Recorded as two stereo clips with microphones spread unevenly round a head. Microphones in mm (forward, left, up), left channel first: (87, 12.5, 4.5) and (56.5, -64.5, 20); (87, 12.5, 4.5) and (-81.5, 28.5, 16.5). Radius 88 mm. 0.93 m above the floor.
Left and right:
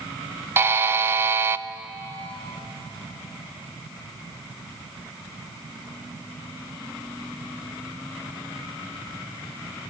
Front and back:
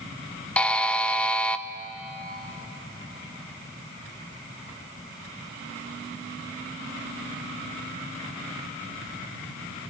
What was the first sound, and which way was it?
A buzzer, 70° right.